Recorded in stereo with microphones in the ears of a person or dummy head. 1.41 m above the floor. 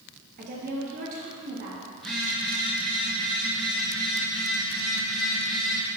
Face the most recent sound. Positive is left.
turn(degrees=0)  # may be behind; listen again after turning